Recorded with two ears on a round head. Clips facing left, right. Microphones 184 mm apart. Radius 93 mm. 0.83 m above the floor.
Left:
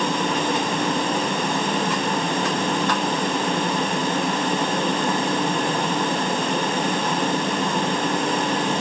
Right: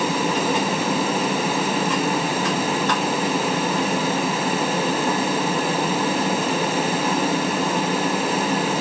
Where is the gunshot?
I don't hear a gunshot.